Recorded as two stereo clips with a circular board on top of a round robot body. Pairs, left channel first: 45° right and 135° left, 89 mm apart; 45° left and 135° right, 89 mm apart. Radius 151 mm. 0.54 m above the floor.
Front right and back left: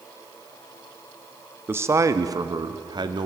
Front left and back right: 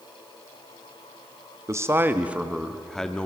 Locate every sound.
1.7 s a man speaking: 170° right, 1.4 m; by 3.3 s 120° left, 1.8 m